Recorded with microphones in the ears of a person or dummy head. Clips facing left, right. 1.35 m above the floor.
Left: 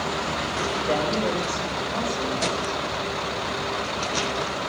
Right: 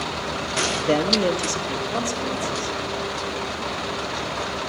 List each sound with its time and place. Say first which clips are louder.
0.9 s a man speaking: right 5 dB; 35° right (ahead or behind), 1.2 m; by 2.8 s 55° right (ahead or behind), 4 m